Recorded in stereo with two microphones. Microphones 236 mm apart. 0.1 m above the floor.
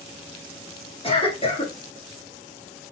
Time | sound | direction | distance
1.0 | a cough | 25° left (ahead or behind) | 1.6 m